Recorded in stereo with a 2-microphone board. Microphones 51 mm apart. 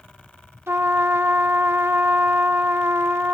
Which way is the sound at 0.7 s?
60° right (ahead or behind).